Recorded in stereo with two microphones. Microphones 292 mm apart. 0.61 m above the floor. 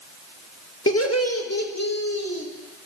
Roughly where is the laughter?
Left.